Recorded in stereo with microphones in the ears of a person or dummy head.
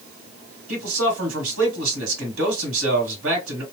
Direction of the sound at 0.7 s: 90° right.